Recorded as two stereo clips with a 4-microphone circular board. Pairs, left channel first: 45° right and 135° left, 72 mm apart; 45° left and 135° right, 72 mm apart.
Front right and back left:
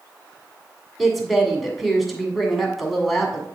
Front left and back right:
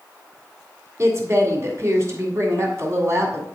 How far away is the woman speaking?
About 1.7 m.